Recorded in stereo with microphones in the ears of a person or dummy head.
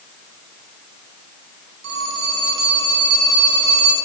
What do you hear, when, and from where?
1.8 s a phone ringing: 85° right, 9 m